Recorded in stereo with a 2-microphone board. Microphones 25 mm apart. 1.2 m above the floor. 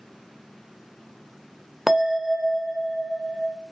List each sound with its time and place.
1.9 s a bell: 15° right (ahead or behind), 0.5 m